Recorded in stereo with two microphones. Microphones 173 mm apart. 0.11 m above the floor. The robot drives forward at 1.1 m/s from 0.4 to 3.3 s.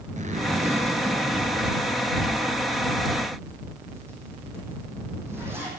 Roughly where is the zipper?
Right.